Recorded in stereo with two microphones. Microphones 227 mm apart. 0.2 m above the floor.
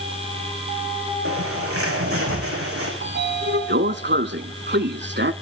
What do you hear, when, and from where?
1.2 s a bird: 80° right, 6 m
3.0 s a sliding door: 50° right (ahead or behind), 0.7 m